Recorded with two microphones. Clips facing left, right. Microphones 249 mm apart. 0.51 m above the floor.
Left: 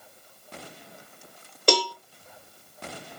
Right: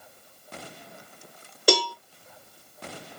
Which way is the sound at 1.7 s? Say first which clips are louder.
Right 1 dB; 10° right (ahead or behind).